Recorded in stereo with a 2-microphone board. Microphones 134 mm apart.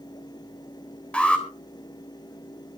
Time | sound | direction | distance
1.1 | an alarm | 5° left (ahead or behind) | 4 m